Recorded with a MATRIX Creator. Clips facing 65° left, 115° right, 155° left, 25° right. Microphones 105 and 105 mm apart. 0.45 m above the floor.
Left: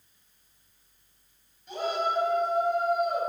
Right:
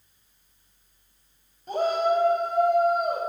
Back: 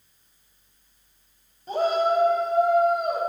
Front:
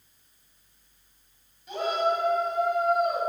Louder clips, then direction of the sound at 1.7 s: Right 6 dB, back 4 dB; 155° right.